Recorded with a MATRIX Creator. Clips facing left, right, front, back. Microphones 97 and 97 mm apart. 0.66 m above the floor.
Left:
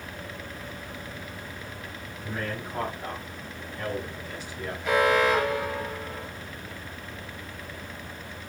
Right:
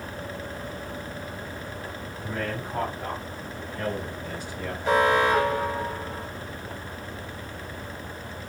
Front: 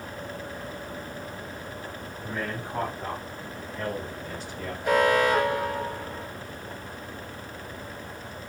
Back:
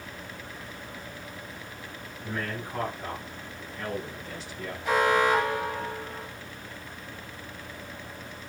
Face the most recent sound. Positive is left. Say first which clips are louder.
# right 1 dB, front 2 dB
turn(degrees=-35)